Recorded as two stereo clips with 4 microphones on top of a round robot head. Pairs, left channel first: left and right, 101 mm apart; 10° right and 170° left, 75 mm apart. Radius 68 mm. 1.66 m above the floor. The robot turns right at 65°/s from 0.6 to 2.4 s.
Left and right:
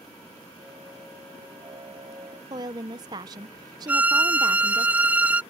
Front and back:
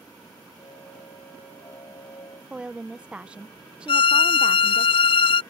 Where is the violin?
10° right.